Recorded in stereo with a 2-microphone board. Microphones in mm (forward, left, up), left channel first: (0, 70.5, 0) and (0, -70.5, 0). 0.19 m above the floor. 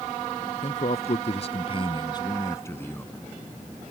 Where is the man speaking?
55° left (ahead or behind); by 3.2 s 10° left (ahead or behind).